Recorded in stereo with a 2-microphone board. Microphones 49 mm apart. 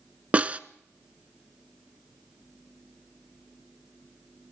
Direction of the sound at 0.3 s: 30° right (ahead or behind).